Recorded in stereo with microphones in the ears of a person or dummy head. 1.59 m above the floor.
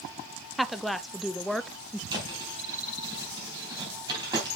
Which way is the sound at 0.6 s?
5° left (ahead or behind).